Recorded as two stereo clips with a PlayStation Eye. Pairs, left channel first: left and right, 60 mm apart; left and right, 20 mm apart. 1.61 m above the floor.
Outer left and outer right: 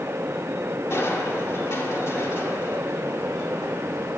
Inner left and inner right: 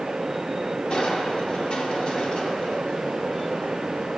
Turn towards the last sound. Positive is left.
turn(degrees=50)  # may be behind; listen again after turning